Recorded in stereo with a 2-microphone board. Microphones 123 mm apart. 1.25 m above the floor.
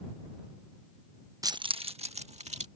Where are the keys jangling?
30° right (ahead or behind); by 2.7 s 65° right (ahead or behind).